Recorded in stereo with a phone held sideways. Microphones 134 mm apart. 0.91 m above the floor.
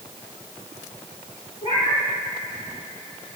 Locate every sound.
1.6 s a cat meowing: 50° left (ahead or behind), 4 m